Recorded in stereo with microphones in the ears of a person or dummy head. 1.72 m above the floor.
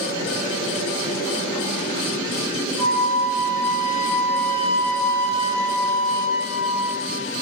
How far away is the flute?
About 1.5 m.